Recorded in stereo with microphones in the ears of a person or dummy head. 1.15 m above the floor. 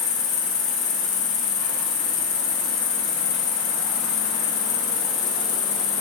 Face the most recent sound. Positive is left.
turn(degrees=40)  # may be behind; listen again after turning